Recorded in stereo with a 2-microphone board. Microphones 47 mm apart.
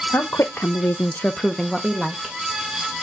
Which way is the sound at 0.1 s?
50° left (ahead or behind).